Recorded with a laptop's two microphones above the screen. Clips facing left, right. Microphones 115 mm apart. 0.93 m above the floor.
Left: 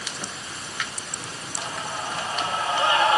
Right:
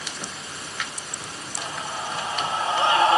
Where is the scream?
10° right (ahead or behind), 3 m; by 3.2 s 30° right (ahead or behind), 3 m.